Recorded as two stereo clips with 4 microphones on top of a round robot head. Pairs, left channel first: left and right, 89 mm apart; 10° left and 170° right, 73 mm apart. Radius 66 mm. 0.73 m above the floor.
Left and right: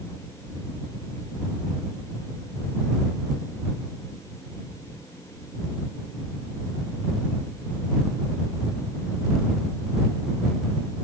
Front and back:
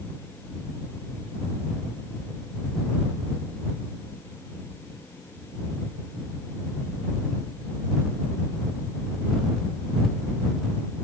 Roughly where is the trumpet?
I don't hear a trumpet.